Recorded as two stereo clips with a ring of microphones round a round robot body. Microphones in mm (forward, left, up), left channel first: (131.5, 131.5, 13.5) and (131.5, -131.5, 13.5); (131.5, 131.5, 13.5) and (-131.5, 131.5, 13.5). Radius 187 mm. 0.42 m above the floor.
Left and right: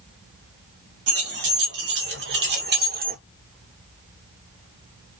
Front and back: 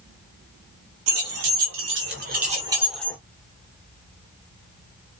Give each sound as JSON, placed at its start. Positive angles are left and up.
{"t": 1.1, "sound": "keys jangling", "azimuth_deg": -145, "distance_m": 2.0}